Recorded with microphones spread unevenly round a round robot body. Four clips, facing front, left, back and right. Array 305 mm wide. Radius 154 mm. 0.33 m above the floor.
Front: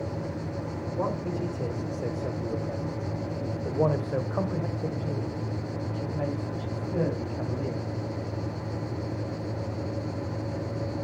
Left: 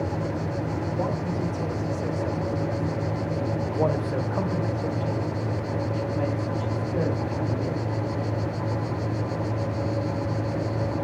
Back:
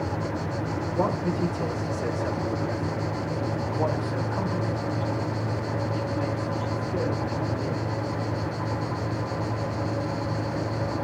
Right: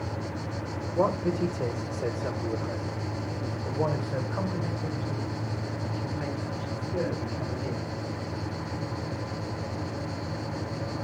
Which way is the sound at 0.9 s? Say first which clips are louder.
Right 6 dB, back 4 dB; 95° right.